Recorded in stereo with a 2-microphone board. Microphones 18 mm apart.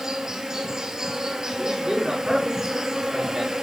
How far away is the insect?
About 1.5 m.